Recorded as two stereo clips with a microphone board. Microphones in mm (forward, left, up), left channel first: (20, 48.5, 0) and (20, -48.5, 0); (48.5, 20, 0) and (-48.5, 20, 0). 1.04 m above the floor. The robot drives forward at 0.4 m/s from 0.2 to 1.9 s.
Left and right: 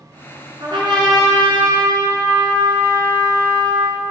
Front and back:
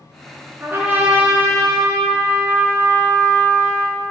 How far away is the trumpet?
About 2.5 m.